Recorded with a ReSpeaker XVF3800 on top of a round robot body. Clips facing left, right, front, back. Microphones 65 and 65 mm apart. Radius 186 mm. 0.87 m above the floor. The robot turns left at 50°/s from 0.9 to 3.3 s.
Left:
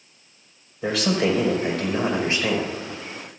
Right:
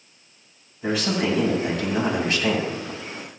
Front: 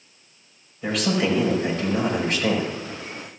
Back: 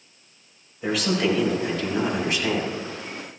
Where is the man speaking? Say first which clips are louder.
Left 2 dB, even; 95° left, 4 m; by 2.7 s 5° left, 4 m.